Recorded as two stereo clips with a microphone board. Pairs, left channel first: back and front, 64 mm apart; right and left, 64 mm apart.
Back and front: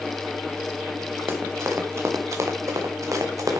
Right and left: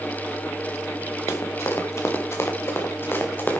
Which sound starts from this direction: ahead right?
Running footsteps, at 1.3 s.